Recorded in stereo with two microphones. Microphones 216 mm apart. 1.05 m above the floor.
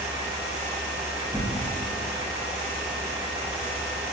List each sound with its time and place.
1.3 s tearing paper: 45° left (ahead or behind), 1.9 m